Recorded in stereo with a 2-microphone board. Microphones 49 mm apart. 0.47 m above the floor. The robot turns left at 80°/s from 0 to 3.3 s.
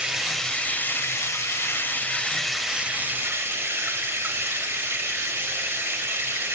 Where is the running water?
160° right, 0.8 m; by 6.6 s 60° right, 0.8 m.